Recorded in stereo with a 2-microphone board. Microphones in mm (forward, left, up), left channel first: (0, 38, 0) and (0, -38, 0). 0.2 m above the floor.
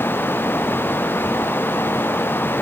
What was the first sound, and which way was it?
Only background noise.